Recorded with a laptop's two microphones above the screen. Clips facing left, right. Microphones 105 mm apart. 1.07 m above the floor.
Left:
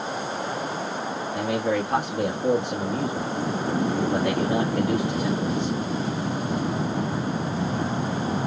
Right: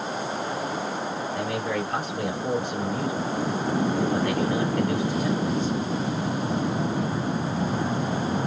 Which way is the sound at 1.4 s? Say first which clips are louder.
Left 5 dB; 85° left.